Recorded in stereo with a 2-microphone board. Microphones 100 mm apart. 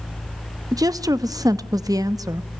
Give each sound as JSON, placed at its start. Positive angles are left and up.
{"t": 0.7, "sound": "a woman speaking", "side_deg": -35, "distance_m": 0.8}